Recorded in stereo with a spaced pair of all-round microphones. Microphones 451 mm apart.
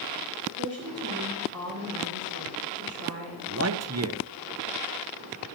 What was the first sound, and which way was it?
A woman speaking, 30° right (ahead or behind).